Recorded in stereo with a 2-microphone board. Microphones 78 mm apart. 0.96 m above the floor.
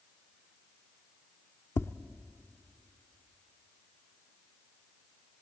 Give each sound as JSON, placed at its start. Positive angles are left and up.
{"t": 1.8, "sound": "tapping", "side_deg": 30, "distance_m": 0.5}